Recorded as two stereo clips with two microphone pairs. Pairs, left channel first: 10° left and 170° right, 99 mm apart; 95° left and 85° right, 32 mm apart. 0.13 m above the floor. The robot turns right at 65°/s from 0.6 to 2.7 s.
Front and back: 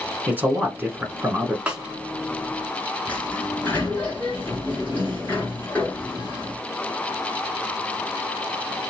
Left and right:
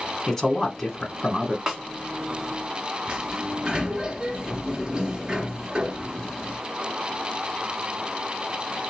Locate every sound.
0.3 s a man speaking: 150° left, 1.1 m; by 1.6 s 150° right, 1.1 m
1.7 s a snare drum: 105° right, 1.0 m; by 1.8 s 100° right, 1.0 m
3.1 s a sliding door: 45° right, 1.7 m